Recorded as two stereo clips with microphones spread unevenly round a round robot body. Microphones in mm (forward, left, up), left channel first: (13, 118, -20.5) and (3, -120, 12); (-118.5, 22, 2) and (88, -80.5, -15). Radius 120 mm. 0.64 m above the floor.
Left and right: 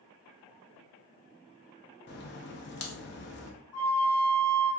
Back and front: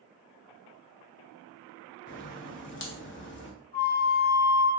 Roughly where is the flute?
Left.